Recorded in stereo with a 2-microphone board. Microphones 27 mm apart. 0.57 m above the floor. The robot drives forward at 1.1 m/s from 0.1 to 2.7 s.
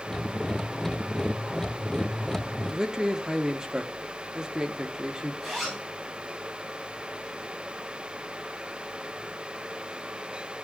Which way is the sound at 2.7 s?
25° right (ahead or behind).